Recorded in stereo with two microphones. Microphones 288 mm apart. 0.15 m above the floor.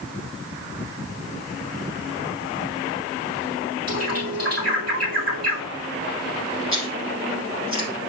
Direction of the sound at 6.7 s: 50° right (ahead or behind).